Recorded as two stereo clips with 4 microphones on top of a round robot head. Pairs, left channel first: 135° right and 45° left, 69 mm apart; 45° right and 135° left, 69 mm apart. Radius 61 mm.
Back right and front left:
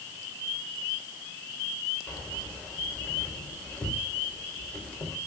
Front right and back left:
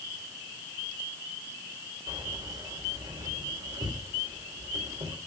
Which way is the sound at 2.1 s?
155° left.